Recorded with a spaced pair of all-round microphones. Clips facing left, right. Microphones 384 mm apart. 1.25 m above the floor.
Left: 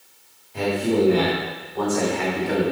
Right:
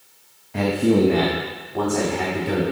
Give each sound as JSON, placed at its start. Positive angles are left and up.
{"t": 0.5, "sound": "a man speaking", "side_deg": -75, "distance_m": 1.4}